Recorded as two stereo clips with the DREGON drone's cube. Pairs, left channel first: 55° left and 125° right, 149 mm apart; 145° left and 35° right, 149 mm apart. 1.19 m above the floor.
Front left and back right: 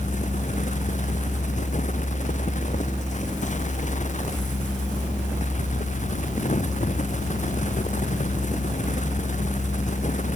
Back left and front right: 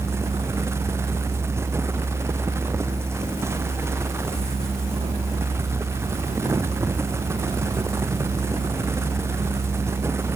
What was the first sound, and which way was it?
Only background noise.